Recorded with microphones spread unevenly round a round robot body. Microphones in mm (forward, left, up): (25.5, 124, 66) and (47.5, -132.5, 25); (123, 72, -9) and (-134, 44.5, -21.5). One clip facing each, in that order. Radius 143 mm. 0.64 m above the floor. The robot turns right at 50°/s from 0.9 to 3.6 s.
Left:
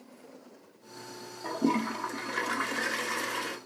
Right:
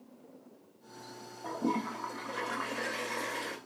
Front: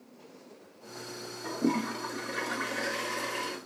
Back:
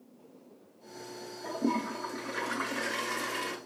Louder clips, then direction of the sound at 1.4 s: Left 5 dB, front 2 dB; 80° left.